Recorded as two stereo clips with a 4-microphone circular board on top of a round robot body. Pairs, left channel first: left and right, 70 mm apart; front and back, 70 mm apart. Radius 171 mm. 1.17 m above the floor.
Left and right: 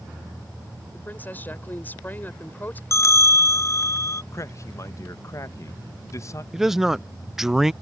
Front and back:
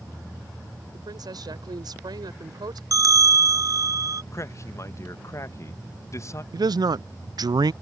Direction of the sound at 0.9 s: 155° left.